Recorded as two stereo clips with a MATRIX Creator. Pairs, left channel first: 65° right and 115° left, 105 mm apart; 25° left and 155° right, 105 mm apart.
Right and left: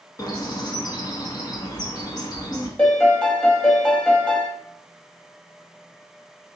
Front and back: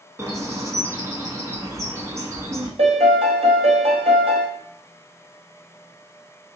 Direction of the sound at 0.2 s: 105° right.